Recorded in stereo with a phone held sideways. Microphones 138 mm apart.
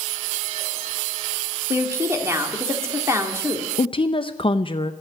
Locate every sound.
1.7 s a woman speaking: 20° right (ahead or behind), 2 m
3.8 s a woman speaking: 40° left (ahead or behind), 0.6 m